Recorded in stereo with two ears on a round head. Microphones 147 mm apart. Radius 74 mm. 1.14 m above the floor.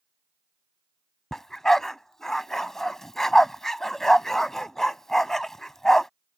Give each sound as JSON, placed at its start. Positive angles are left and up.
{"t": 1.3, "sound": "a dog barking", "side_deg": 0}